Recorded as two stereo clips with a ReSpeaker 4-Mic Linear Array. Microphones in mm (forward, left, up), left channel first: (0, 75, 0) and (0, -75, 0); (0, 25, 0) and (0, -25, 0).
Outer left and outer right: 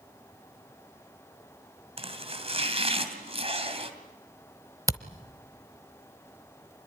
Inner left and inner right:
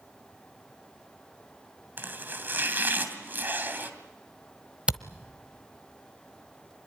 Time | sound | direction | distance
2.0 | chopping | 40° right (ahead or behind) | 2.5 m
4.9 | a camera shutter | 20° right (ahead or behind) | 1.1 m